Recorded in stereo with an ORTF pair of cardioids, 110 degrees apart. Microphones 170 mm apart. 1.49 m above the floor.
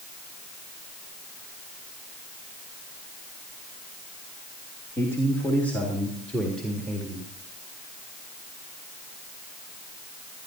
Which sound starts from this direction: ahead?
A man speaking, at 5.0 s.